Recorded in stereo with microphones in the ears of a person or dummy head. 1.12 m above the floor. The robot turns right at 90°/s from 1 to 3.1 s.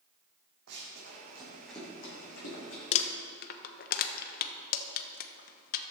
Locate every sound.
0.7 s running footsteps: 65° right (ahead or behind), 4 m; by 2.8 s 70° left (ahead or behind), 5 m
2.9 s crumpling: 35° left (ahead or behind), 0.8 m; by 5.8 s 50° left (ahead or behind), 0.8 m